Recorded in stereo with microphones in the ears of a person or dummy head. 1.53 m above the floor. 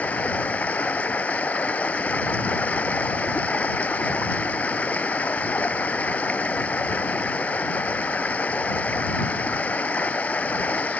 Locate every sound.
0.0 s running water: 10° left (ahead or behind)